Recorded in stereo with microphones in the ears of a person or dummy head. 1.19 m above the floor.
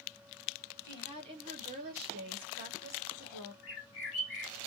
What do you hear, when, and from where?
0.8 s a woman speaking: 20° right (ahead or behind), 1.3 m; by 3.5 s 55° right (ahead or behind), 1.0 m
3.6 s a bird: 40° left (ahead or behind), 1.0 m